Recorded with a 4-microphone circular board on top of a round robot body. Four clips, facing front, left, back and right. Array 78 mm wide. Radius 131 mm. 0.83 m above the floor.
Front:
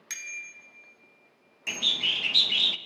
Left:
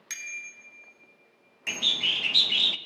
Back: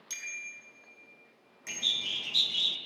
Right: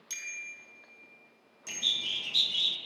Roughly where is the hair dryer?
I don't hear a hair dryer.